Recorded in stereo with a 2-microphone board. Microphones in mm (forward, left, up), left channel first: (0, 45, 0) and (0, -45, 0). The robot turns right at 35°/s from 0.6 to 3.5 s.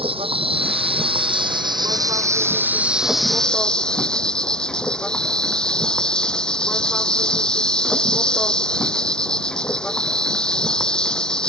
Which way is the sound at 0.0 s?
90° right.